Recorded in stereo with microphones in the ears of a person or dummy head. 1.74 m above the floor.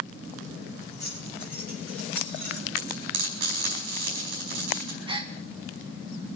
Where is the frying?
50° right (ahead or behind), 4 m.